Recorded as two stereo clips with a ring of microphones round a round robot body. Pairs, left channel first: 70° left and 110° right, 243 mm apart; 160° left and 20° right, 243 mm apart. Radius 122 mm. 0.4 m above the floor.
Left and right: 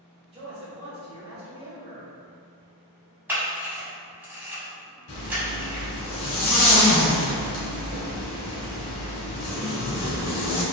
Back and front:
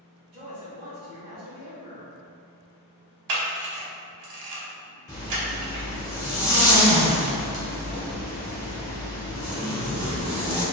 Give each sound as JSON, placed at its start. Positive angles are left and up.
{"t": 0.3, "sound": "a man speaking", "azimuth_deg": -55, "distance_m": 1.1}
{"t": 3.3, "sound": "a camera shutter", "azimuth_deg": -30, "distance_m": 1.0}
{"t": 5.1, "sound": "a zipper", "azimuth_deg": 85, "distance_m": 1.5}